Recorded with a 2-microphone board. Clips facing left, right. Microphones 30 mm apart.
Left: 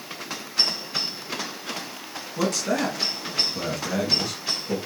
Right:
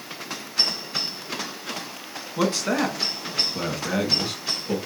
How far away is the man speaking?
About 1.6 m.